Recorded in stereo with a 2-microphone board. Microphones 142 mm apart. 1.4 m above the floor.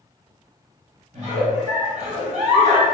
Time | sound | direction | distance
1.1 | a giggle | 50° right (ahead or behind) | 1.3 m